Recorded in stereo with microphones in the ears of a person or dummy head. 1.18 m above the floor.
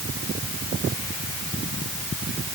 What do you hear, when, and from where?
Only background noise.